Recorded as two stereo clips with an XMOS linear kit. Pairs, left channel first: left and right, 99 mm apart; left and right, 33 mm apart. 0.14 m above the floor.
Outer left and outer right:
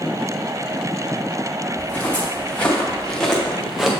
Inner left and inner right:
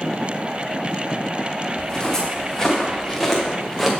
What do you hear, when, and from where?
1.8 s footsteps: 15° left (ahead or behind), 3 m; by 3.9 s 5° right (ahead or behind), 1.7 m